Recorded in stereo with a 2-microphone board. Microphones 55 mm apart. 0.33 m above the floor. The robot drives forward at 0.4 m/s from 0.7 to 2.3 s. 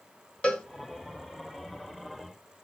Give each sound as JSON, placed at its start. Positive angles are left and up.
{"t": 0.4, "sound": "a cowbell", "side_deg": 20, "distance_m": 1.6}